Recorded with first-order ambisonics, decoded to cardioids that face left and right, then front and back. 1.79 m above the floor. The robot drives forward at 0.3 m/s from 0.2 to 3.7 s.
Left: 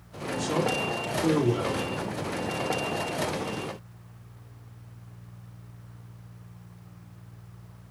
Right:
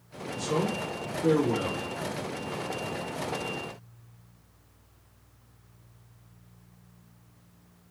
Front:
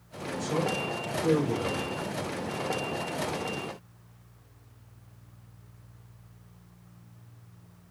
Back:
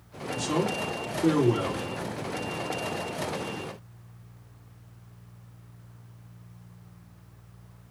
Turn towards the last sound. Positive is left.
turn(degrees=160)